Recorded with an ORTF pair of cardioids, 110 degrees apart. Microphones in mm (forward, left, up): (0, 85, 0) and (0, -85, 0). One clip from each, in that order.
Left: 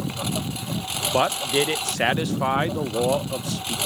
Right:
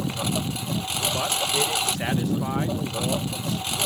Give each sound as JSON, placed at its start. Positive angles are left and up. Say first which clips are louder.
{"t": 0.0, "sound": "a lawn mower", "louder": "right 1 dB", "azimuth_deg": -15}
{"t": 1.1, "sound": "a man speaking", "louder": "left 5 dB", "azimuth_deg": 45}